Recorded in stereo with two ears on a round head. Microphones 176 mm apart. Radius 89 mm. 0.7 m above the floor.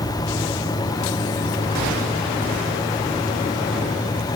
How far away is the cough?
No cough in this recording.